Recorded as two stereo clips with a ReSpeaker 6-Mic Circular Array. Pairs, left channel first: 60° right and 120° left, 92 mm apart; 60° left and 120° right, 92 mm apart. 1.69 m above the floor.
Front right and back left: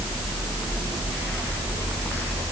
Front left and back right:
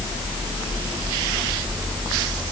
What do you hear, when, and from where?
Only background noise.